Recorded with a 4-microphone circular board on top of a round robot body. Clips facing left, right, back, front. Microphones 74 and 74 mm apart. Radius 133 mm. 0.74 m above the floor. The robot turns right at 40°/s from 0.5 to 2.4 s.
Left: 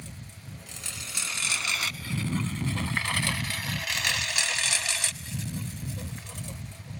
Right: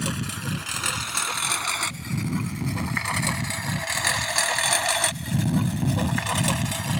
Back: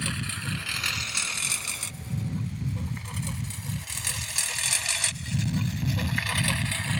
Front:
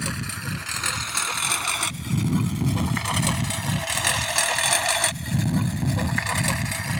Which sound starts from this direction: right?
A lawn mower, at 0.0 s.